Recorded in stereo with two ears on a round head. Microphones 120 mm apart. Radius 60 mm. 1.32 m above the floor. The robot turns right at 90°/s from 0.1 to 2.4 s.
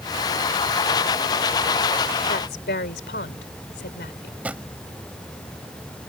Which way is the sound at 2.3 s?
75° left (ahead or behind).